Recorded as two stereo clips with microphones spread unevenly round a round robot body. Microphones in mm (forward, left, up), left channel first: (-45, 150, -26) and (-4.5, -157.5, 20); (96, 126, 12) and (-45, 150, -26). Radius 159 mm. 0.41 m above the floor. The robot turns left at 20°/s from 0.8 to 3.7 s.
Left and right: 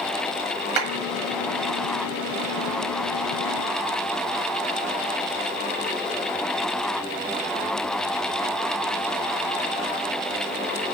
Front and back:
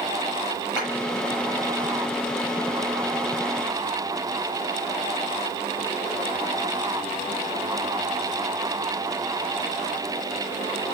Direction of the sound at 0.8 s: 110° right.